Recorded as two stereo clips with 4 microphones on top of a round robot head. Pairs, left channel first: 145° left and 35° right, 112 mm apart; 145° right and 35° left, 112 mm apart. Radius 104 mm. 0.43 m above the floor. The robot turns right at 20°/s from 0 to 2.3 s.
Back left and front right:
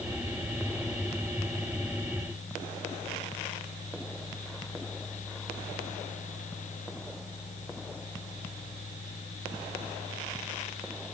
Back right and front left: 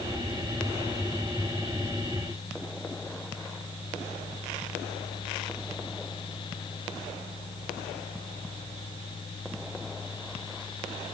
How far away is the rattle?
No rattle in this recording.